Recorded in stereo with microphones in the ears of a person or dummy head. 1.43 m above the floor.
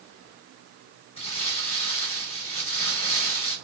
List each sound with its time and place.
1.2 s crumpling: 35° left (ahead or behind), 1.6 m